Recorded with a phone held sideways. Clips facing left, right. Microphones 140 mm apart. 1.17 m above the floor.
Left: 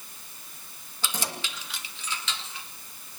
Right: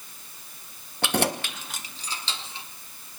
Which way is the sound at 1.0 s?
65° right (ahead or behind).